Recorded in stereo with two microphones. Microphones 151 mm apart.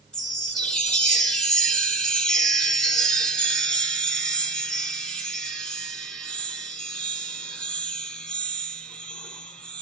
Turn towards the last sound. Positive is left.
turn(degrees=5)  # may be behind; listen again after turning